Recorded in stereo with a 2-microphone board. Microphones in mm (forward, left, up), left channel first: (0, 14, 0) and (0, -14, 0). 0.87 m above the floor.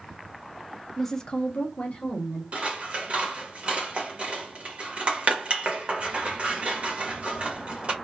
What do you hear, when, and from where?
1.0 s a woman speaking: 5° left (ahead or behind), 0.6 m; by 2.4 s 60° left (ahead or behind), 1.2 m
2.5 s scissors: 40° right (ahead or behind), 0.9 m